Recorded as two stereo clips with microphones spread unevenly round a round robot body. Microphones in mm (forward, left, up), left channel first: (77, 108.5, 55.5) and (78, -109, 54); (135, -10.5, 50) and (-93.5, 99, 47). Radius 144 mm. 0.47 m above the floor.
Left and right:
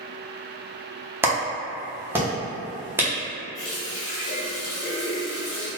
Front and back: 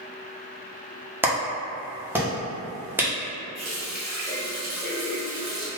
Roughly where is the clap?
Behind right.